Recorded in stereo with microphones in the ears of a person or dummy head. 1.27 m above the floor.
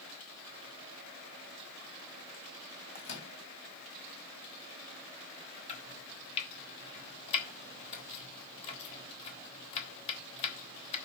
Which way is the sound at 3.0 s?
55° left (ahead or behind).